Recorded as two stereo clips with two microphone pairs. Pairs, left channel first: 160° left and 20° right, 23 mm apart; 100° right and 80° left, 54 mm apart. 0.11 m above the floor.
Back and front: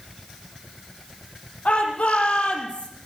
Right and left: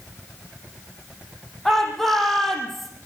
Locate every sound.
1.6 s a shout: 175° left, 6 m